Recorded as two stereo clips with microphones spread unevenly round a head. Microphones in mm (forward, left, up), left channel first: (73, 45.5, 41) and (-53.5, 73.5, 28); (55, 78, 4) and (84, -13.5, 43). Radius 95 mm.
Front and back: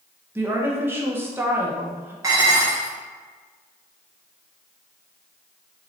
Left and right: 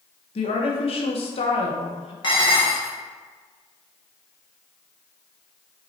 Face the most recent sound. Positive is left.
turn(degrees=130)